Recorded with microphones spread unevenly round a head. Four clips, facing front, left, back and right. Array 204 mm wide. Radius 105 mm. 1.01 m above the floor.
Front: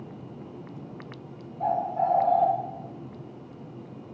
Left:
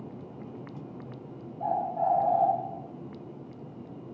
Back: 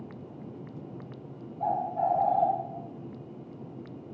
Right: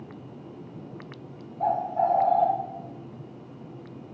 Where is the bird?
65° right, 5.5 m.